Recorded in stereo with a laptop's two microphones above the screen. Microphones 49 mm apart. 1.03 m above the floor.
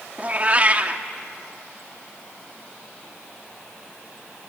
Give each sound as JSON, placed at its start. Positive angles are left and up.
{"t": 0.2, "sound": "a cat meowing", "side_deg": -30, "distance_m": 0.8}